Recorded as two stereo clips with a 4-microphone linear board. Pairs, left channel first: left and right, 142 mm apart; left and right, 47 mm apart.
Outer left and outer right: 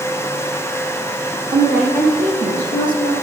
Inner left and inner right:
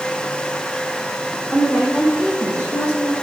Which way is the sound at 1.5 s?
75° right (ahead or behind).